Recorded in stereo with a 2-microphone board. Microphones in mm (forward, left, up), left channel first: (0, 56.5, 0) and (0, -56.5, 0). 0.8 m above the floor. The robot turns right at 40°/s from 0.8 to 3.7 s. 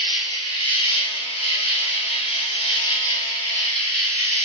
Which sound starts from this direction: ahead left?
An insect, at 0.0 s.